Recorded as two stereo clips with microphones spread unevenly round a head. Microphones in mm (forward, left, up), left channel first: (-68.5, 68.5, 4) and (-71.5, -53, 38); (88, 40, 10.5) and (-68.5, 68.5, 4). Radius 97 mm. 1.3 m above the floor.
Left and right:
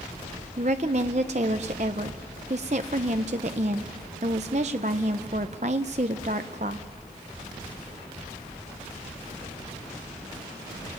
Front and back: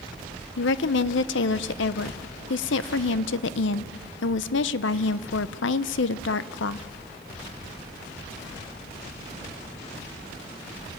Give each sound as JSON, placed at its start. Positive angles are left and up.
{"t": 0.6, "sound": "a woman speaking", "azimuth_deg": -35, "distance_m": 0.6}